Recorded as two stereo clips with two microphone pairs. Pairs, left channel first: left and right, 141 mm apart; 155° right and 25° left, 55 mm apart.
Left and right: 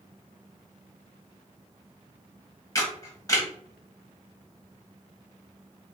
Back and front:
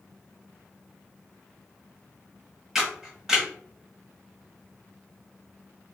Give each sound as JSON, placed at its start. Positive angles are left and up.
{"t": 2.8, "sound": "a camera shutter", "azimuth_deg": 95, "distance_m": 1.7}